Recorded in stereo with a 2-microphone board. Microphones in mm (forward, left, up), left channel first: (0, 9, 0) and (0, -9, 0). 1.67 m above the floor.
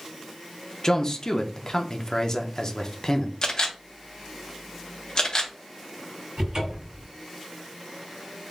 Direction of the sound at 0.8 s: 35° left (ahead or behind).